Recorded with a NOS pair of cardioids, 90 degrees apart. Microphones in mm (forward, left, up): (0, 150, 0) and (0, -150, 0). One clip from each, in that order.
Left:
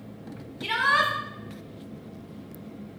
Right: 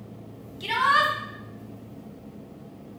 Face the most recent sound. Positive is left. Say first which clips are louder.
# right 1 dB
turn(degrees=0)